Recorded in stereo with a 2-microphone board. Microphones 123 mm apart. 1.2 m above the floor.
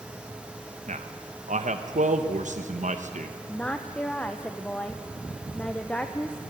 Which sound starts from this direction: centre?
A woman speaking, at 3.5 s.